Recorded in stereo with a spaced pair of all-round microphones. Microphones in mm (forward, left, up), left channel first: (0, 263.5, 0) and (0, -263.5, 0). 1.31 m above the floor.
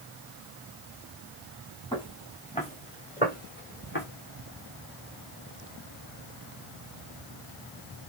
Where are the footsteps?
10° left (ahead or behind), 6.5 m; by 4.0 s 20° left (ahead or behind), 7.5 m.